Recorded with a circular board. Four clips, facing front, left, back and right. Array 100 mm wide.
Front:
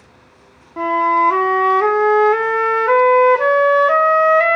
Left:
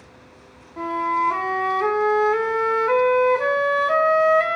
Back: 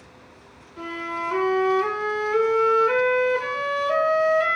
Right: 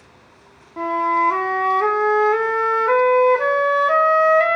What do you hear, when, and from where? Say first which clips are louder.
0.8 s a flute: right 3 dB, front 16 dB; 20° right, 0.5 m